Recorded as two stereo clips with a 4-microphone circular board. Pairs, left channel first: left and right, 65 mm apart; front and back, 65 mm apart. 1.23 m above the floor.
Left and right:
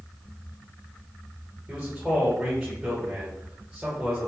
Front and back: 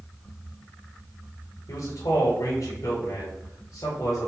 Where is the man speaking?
5° right, 5 m.